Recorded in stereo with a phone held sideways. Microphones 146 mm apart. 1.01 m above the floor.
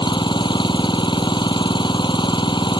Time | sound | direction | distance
0.0 | an engine running | 30° left (ahead or behind) | ?